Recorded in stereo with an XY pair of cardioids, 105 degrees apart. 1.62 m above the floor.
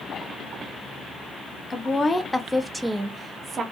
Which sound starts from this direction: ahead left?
A woman speaking, at 1.7 s.